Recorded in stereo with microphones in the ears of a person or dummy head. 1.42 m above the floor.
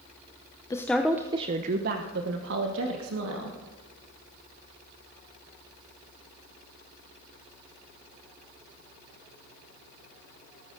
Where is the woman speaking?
15° left (ahead or behind), 0.8 m; by 3.6 s 85° right, 2.5 m.